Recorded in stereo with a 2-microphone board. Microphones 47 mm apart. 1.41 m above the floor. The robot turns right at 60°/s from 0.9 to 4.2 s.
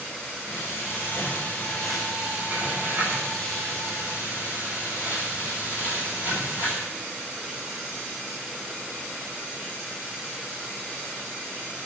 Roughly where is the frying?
Behind left.